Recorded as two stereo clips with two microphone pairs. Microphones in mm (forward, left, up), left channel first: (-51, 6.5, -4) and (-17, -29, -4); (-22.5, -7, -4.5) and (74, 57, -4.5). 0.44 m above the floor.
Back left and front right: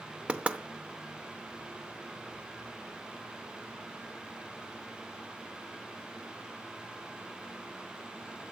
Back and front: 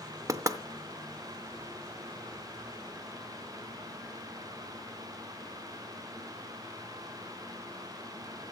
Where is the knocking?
5° left, 0.6 m.